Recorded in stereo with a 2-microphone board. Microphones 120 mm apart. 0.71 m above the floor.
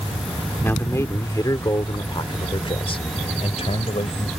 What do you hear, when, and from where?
0.6 s a man speaking: 15° left (ahead or behind); by 4.3 s 60° left (ahead or behind)